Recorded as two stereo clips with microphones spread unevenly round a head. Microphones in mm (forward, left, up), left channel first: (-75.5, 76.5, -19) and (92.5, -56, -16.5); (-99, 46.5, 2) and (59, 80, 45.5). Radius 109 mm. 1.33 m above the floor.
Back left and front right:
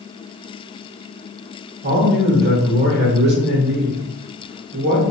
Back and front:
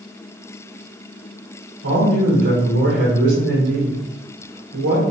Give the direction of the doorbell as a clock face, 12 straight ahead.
I don't hear a doorbell.